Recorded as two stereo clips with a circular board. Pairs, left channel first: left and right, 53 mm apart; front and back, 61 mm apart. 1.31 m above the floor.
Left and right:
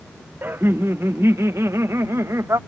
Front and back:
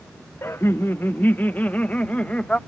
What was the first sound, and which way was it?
Laughter, 45° right.